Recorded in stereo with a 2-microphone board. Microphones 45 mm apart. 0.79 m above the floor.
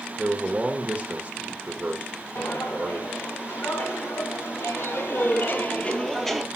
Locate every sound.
0.2 s a man speaking: 30° right (ahead or behind), 0.9 m
2.4 s footsteps: 65° left (ahead or behind), 3.5 m; by 6.5 s 5° right (ahead or behind), 1.0 m